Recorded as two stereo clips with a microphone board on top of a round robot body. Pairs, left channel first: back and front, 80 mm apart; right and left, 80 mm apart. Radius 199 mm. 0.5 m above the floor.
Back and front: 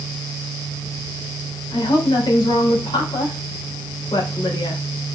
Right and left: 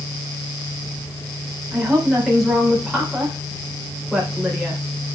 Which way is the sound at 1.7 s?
175° left.